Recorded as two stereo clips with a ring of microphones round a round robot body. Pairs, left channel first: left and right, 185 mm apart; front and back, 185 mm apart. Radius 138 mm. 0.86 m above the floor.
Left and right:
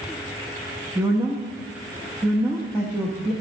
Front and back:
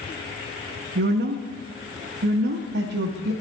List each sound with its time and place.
0.9 s a woman speaking: 170° right, 0.7 m